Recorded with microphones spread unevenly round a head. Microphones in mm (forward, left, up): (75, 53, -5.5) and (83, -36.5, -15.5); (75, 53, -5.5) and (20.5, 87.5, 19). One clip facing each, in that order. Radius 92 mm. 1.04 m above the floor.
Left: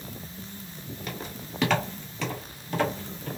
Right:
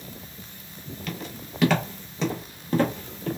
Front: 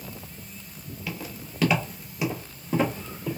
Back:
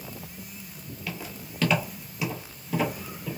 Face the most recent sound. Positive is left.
turn(degrees=-110)